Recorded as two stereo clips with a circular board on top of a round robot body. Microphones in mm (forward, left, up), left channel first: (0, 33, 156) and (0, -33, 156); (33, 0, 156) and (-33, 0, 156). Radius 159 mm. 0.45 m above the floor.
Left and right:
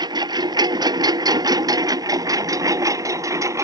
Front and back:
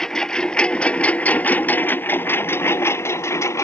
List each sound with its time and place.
0.0 s a lawn mower: 80° right; by 3.6 s 50° right